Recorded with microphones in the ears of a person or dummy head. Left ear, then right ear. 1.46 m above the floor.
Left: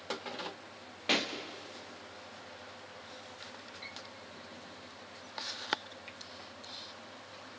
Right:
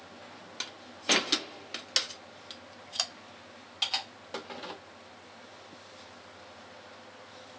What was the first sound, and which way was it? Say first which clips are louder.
A pop: right 5 dB; 15° right (ahead or behind).